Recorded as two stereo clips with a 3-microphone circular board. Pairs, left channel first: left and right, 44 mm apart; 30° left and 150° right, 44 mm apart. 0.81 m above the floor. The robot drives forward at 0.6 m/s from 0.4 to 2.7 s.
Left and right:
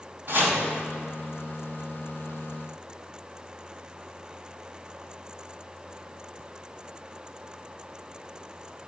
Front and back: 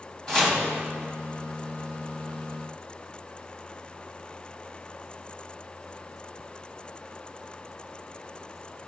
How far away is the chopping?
About 3 m.